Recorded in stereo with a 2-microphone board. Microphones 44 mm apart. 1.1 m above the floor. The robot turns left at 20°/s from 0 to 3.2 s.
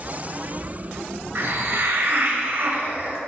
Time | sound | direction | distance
1.4 | a hiss | 95° right | 1.4 m